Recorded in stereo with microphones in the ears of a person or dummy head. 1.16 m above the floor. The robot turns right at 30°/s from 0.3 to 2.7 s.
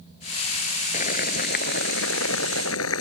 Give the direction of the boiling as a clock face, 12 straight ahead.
10 o'clock.